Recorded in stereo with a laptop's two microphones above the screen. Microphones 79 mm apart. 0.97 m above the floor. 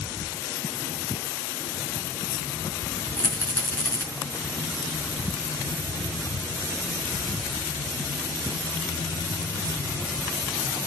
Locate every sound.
3.2 s a rattle: 30° left (ahead or behind), 5 m